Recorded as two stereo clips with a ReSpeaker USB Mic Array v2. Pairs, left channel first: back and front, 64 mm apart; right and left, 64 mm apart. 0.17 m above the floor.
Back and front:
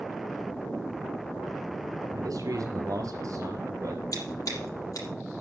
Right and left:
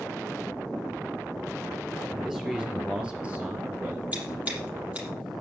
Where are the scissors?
155° left, 6 m.